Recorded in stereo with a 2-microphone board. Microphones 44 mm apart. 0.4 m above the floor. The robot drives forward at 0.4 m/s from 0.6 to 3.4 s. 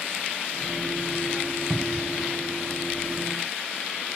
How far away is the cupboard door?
About 2 m.